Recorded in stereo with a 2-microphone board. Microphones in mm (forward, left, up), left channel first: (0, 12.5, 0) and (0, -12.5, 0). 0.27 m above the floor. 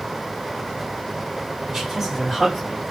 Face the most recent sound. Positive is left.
turn(degrees=20)  # may be behind; listen again after turning